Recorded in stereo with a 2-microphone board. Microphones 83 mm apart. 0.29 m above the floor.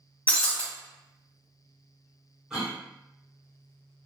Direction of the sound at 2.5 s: 10° right (ahead or behind).